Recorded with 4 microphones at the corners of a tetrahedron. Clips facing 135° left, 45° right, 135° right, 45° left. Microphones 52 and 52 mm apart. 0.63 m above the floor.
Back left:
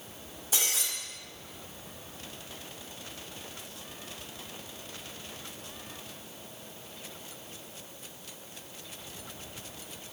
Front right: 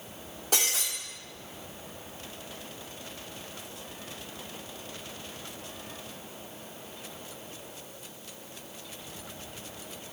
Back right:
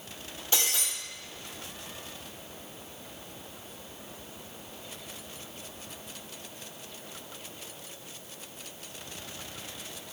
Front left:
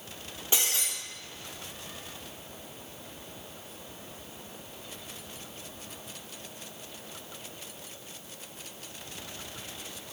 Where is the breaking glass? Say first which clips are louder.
Front right 3 dB, even; 25° right, 4 m.